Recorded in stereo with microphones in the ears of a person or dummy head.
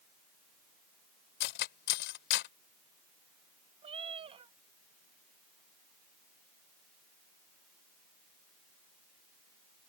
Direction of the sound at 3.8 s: 30° right (ahead or behind).